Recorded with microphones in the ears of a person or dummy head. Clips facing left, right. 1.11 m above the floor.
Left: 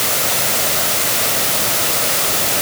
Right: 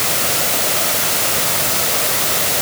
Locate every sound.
Only background noise.